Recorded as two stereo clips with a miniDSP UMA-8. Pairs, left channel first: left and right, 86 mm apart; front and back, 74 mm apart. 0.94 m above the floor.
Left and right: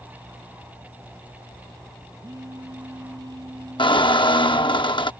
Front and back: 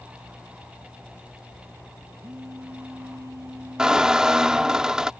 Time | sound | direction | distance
2.2 | a phone buzzing | 135° right | ?
3.8 | a squeak | 100° left | ?